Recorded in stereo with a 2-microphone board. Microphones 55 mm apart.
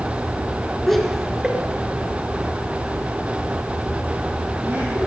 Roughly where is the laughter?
Centre.